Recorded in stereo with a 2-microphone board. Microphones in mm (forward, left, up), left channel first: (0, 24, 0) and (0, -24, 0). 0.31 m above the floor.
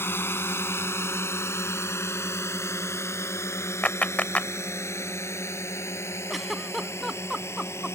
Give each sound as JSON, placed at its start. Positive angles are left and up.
{"t": 0.0, "sound": "a drone", "side_deg": 55}
{"t": 3.8, "sound": "a clap", "side_deg": 35}
{"t": 6.3, "sound": "a giggle", "side_deg": 0}